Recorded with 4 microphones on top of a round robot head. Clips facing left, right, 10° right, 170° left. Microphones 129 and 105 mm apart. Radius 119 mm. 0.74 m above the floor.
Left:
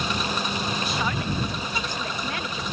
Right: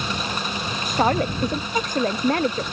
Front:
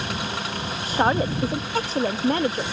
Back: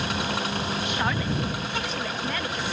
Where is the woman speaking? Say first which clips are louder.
Right 7 dB, front 11 dB; 60° right.